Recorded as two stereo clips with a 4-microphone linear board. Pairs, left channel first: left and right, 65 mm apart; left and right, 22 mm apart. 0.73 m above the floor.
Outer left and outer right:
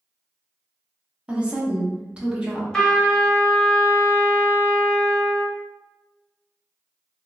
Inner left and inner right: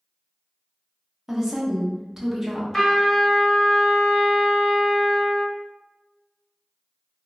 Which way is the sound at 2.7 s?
15° left (ahead or behind).